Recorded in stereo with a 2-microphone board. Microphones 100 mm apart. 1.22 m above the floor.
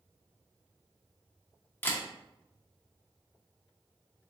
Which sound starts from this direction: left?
A camera shutter, at 1.8 s.